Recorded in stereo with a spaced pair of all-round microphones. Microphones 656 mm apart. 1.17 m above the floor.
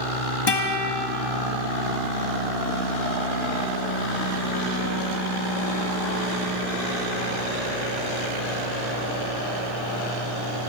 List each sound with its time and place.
0.5 s a guitar: 40° left (ahead or behind), 0.9 m